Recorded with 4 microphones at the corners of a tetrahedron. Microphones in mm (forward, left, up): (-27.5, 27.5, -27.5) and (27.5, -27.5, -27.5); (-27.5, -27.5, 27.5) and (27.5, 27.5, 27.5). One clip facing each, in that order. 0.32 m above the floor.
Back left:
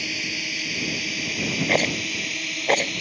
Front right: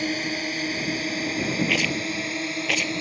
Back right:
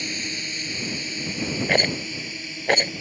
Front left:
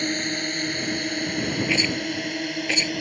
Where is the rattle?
175° right.